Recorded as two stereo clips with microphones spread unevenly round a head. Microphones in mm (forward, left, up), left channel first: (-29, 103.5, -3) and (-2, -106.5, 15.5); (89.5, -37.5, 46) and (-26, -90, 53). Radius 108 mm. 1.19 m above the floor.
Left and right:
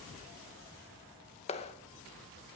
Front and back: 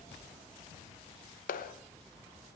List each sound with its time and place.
1.5 s a clap: 35° left, 0.8 m